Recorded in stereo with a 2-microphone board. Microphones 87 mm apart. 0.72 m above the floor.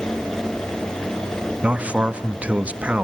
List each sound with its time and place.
1.6 s a man speaking: 15° right (ahead or behind), 0.7 m